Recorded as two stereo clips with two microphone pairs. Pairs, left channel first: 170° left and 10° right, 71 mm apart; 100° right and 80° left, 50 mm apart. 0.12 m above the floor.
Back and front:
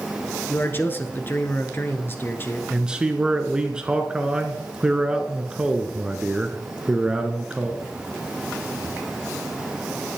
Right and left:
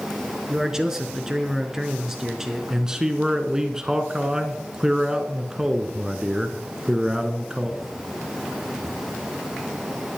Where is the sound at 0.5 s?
150° left, 1.2 m.